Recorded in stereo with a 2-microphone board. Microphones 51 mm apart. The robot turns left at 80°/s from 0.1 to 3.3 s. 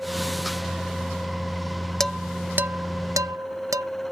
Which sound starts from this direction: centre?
Dishes clattering, at 2.0 s.